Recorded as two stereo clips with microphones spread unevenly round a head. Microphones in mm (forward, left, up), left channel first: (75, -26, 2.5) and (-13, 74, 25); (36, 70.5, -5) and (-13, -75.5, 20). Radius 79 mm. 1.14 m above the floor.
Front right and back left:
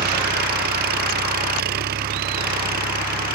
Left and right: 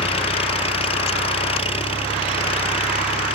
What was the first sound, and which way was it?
An engine running, 130° left.